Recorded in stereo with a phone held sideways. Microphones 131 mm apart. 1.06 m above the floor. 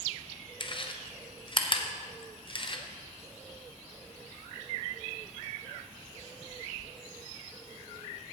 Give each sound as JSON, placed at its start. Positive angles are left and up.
{"t": 0.6, "sound": "chewing", "side_deg": 40, "distance_m": 0.7}